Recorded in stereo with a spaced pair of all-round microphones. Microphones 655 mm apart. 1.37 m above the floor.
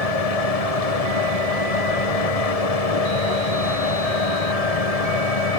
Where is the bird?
I don't hear a bird.